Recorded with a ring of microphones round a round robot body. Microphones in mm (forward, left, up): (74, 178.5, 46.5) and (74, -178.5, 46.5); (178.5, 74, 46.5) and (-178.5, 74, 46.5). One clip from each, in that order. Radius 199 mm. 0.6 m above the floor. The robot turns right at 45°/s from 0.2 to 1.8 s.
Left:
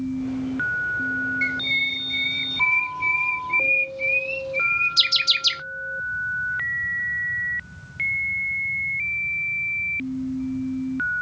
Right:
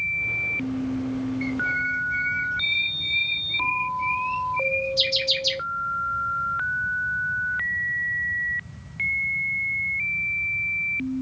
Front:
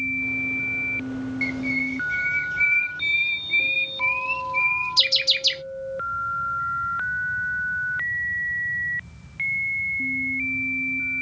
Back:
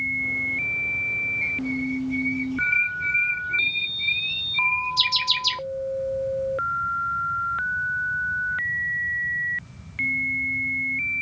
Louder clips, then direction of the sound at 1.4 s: Left 1 dB, front 1 dB; 40° left.